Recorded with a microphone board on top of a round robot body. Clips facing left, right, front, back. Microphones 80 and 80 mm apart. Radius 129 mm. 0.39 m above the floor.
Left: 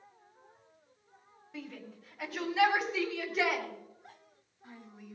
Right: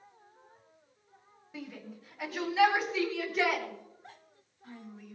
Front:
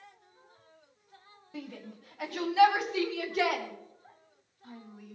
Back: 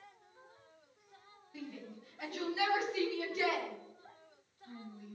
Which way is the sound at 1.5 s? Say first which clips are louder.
Right 1 dB, front 4 dB; 5° right.